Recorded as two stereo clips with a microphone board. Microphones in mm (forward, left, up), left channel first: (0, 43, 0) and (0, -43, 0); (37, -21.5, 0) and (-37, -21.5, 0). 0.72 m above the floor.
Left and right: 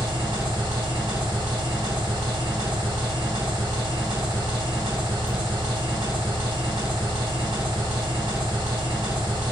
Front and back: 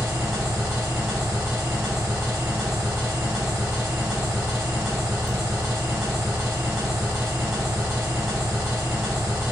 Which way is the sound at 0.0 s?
95° right.